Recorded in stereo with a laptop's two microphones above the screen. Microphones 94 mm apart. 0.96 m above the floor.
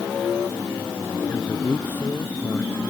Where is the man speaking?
20° left (ahead or behind); by 2.8 s 25° left (ahead or behind).